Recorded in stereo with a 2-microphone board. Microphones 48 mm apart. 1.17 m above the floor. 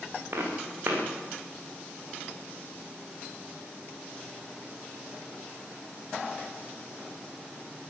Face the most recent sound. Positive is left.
turn(degrees=-60)  # may be behind; listen again after turning